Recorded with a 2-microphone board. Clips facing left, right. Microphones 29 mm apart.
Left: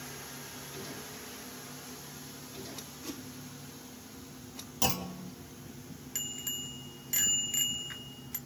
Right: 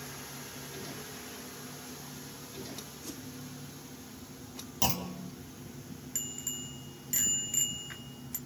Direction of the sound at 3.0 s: 15° left (ahead or behind).